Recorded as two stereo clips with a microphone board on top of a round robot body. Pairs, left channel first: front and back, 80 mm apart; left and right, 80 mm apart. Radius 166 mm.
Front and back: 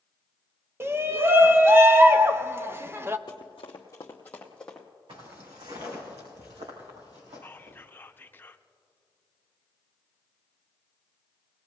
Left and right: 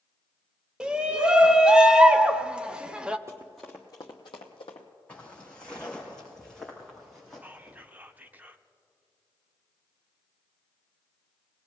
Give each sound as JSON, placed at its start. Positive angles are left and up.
{"t": 0.8, "sound": "a shout", "azimuth_deg": -160, "distance_m": 0.9}
{"t": 3.3, "sound": "running footsteps", "azimuth_deg": -35, "distance_m": 0.7}
{"t": 5.1, "sound": "footsteps", "azimuth_deg": 165, "distance_m": 3.5}
{"t": 7.4, "sound": "whispering", "azimuth_deg": -40, "distance_m": 1.0}